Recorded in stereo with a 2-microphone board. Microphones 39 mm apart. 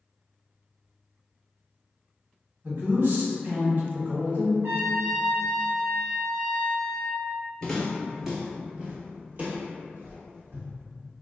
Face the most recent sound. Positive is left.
turn(degrees=-60)  # may be behind; listen again after turning